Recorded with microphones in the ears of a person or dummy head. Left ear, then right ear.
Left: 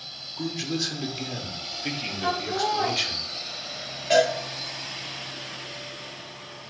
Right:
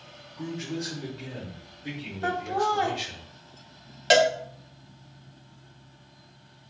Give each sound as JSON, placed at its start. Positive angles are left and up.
{"t": 0.4, "sound": "a man speaking", "side_deg": 80, "distance_m": 0.8}
{"t": 2.2, "sound": "laughter", "side_deg": -70, "distance_m": 1.0}
{"t": 4.1, "sound": "a cowbell", "side_deg": -55, "distance_m": 0.7}